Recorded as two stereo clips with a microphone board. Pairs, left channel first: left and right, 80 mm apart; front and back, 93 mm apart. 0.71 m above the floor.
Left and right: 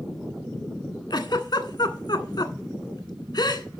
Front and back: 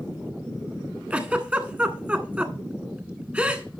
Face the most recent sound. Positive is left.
turn(degrees=110)